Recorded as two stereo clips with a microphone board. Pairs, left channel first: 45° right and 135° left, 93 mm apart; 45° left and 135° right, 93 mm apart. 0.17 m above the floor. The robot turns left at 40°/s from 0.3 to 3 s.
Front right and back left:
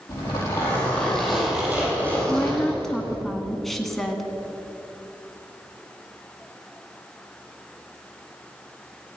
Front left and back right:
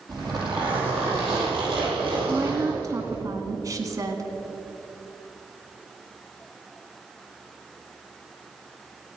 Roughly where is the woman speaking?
Right.